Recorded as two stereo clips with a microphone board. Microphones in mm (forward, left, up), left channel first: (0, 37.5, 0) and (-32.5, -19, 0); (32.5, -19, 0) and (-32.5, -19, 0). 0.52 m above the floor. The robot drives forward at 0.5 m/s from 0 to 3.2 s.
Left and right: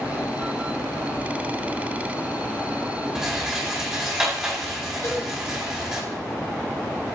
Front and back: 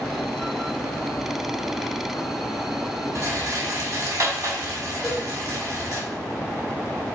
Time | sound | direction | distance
3.1 | a rattle | 160° left | 2.5 m
5.0 | a cowbell | 95° left | 3 m